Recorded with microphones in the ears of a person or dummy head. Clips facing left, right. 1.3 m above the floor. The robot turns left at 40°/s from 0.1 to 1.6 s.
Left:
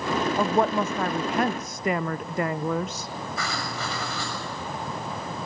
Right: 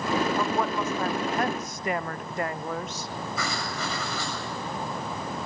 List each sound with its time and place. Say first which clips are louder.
0.4 s a woman speaking: left 4 dB; 155° left, 0.6 m; by 3.1 s 110° left, 0.6 m
3.4 s writing: even; 85° right, 7 m